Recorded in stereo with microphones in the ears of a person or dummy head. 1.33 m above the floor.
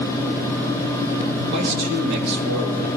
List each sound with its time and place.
1.5 s a man speaking: 55° right (ahead or behind), 2 m